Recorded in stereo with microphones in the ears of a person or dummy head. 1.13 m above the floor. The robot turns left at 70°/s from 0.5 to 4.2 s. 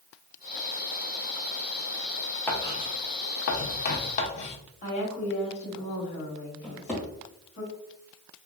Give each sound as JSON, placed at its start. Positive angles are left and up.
{"t": 2.5, "sound": "writing", "side_deg": 10, "distance_m": 0.7}
{"t": 4.8, "sound": "a woman speaking", "side_deg": 40, "distance_m": 1.3}
{"t": 6.6, "sound": "a drawer", "side_deg": 0, "distance_m": 1.9}